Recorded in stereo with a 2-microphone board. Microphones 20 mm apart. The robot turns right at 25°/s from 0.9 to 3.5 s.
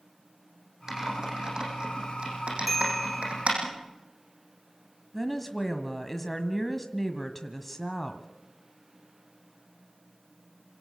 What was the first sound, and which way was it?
Typing on a keyboard, 30° right (ahead or behind).